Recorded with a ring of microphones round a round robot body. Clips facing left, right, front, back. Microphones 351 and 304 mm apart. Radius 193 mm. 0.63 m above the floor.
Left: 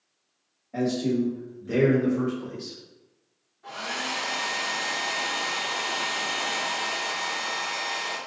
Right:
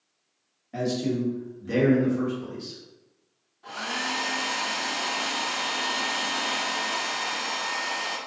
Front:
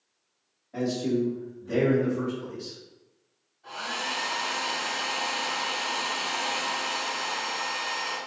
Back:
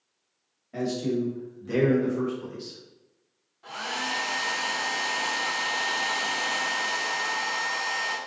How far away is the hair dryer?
About 0.8 m.